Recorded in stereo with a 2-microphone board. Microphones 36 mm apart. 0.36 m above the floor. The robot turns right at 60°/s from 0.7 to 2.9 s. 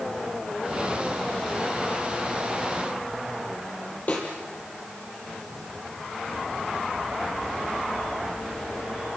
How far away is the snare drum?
About 5.5 m.